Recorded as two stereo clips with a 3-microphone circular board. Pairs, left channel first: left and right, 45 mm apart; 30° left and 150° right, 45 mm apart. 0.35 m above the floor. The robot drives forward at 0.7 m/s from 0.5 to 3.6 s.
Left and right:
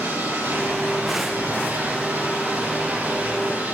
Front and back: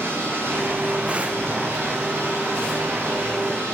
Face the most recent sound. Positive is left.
turn(degrees=-130)